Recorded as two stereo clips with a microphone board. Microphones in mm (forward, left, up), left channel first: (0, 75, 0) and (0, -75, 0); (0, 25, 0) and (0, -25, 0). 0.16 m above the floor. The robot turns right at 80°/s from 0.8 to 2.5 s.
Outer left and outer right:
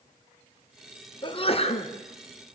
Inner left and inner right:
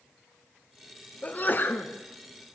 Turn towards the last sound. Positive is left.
turn(degrees=150)